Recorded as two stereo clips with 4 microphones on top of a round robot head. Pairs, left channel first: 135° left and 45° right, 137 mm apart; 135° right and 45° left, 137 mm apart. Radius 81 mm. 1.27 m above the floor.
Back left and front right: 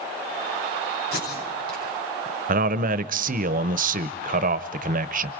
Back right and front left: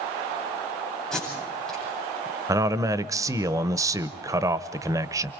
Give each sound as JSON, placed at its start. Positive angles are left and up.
{"t": 1.1, "sound": "tape being pulled", "azimuth_deg": 140, "distance_m": 9.0}
{"t": 2.5, "sound": "a man speaking", "azimuth_deg": -20, "distance_m": 0.8}